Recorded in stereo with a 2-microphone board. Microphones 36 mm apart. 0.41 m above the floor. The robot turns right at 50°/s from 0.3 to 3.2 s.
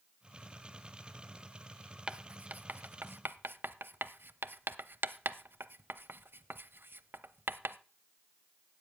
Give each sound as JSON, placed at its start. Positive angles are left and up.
{"t": 2.1, "sound": "writing", "side_deg": -25, "distance_m": 0.5}